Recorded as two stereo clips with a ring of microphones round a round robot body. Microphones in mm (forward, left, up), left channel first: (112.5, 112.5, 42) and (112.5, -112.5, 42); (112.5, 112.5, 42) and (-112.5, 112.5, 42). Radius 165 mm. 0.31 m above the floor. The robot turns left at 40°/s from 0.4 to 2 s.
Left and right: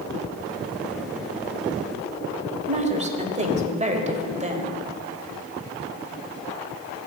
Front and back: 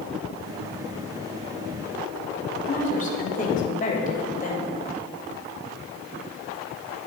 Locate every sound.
2.7 s a woman speaking: 40° right, 1.2 m